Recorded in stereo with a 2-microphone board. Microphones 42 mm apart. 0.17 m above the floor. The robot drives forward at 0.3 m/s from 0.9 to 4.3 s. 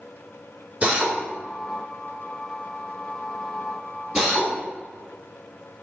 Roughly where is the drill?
Right.